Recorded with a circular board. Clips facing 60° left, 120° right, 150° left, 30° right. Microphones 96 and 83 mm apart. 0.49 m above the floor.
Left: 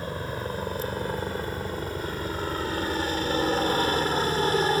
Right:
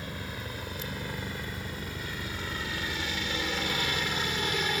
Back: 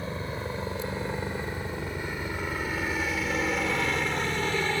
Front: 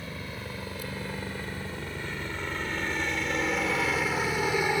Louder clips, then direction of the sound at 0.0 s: Left 7 dB, back 5 dB; 100° left.